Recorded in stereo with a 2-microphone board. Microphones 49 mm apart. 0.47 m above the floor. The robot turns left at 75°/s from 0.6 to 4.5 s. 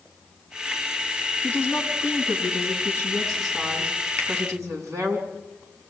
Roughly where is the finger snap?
Right.